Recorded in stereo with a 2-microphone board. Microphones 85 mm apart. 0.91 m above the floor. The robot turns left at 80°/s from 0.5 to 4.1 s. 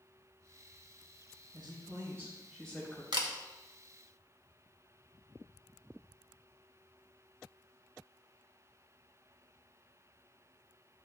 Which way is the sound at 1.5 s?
100° right.